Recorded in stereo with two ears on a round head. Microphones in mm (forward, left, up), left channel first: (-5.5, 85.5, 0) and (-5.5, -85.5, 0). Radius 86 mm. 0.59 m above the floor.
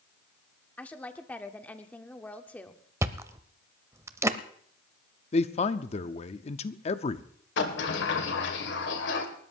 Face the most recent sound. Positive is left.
turn(degrees=70)  # may be behind; listen again after turning